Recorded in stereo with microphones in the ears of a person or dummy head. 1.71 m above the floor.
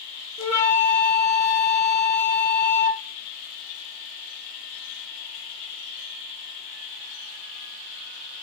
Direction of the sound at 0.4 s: 20° left (ahead or behind).